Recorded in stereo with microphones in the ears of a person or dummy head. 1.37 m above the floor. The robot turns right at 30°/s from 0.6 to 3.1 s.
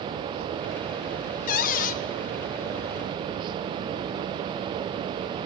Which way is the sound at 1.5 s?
40° left (ahead or behind).